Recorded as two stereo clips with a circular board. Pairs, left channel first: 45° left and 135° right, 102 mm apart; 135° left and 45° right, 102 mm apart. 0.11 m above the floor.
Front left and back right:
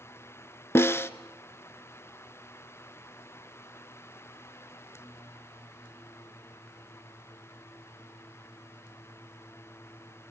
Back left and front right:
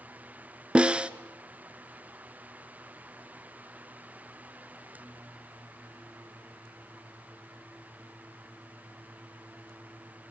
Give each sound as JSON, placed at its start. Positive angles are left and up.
{"t": 0.8, "sound": "a snare drum", "azimuth_deg": 20, "distance_m": 0.7}